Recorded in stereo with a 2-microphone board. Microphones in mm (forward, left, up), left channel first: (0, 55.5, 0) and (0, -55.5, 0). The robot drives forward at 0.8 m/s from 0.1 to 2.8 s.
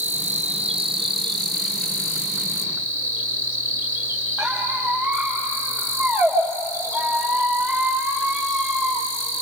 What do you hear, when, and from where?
0.0 s an insect: 80° right, 0.8 m; by 9.4 s 20° right (ahead or behind), 2.5 m
4.4 s a squeak: centre (ahead or behind), 4.5 m